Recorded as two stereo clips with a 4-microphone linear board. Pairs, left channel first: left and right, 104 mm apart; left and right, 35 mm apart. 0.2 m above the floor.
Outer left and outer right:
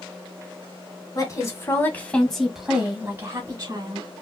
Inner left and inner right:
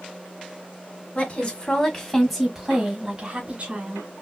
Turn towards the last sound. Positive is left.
turn(degrees=-40)  # may be behind; listen again after turning